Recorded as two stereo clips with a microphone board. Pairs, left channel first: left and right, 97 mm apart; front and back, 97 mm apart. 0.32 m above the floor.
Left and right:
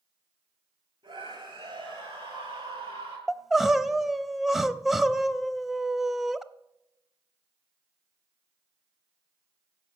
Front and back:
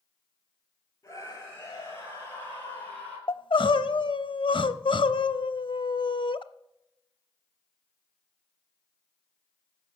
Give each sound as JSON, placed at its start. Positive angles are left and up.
{"t": 1.0, "sound": "a scream", "azimuth_deg": -60, "distance_m": 6.5}
{"t": 3.3, "sound": "crying", "azimuth_deg": 0, "distance_m": 0.7}